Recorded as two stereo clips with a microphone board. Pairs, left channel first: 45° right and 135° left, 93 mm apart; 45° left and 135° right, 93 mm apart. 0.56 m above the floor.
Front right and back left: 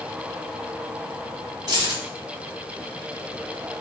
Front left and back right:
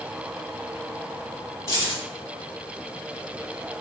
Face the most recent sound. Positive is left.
turn(degrees=100)